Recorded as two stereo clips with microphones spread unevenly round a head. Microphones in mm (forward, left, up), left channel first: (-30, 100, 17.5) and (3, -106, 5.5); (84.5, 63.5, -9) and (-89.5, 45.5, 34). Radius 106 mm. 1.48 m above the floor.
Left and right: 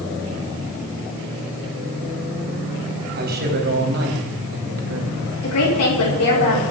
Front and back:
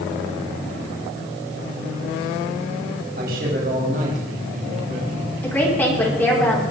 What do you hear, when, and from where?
3.2 s a man speaking: 125° right, 3.5 m; by 5.3 s 110° right, 2.5 m
5.4 s a woman speaking: 85° left, 5.5 m